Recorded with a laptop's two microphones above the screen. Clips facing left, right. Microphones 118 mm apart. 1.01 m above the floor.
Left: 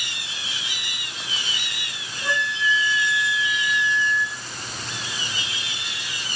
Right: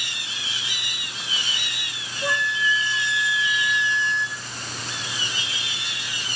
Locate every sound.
2.2 s a flute: 10° right (ahead or behind), 6 m